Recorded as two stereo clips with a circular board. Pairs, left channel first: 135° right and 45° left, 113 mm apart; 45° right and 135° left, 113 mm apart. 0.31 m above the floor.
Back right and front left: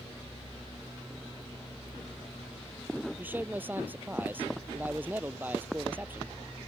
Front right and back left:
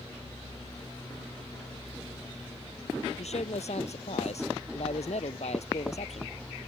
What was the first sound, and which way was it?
A man speaking, 30° right.